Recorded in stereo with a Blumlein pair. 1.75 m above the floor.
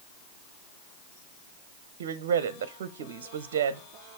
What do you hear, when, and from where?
2.0 s a woman speaking: 55° right, 0.6 m